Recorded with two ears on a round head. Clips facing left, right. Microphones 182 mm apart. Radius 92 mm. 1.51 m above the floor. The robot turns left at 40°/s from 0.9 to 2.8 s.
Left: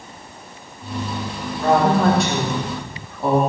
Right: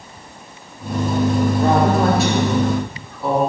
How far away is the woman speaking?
About 3.5 m.